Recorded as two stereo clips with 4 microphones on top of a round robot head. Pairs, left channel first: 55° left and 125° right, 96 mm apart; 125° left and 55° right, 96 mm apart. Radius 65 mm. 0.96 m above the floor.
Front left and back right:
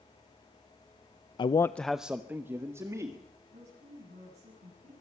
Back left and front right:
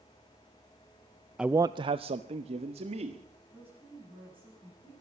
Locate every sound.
1.4 s a man speaking: 30° left, 0.5 m; by 3.2 s 65° right, 1.9 m
3.5 s a woman speaking: 125° right, 9 m